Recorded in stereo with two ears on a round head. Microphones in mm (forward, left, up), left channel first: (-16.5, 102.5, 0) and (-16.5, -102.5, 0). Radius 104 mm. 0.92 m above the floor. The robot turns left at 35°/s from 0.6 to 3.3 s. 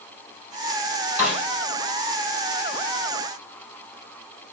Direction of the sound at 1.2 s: 10° right (ahead or behind).